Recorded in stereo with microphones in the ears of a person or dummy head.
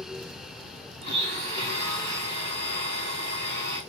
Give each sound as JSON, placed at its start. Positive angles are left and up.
{"t": 1.0, "sound": "a blender", "side_deg": -30, "distance_m": 2.5}